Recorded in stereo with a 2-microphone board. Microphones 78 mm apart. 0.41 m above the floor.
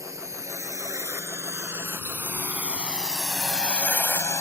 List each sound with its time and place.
0.0 s a drone: 45° right (ahead or behind); by 4.4 s 40° left (ahead or behind)